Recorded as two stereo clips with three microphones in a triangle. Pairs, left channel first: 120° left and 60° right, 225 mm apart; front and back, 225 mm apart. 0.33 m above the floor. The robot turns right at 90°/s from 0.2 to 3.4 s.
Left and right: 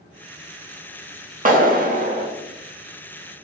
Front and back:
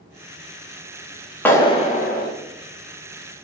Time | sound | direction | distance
1.4 | a clap | 80° right | 0.7 m